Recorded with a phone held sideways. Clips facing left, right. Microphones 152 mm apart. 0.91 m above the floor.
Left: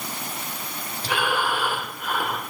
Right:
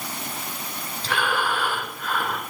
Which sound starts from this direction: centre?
Breathing, at 1.0 s.